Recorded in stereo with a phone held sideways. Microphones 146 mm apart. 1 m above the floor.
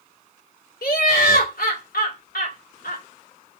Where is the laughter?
85° left, 2.5 m.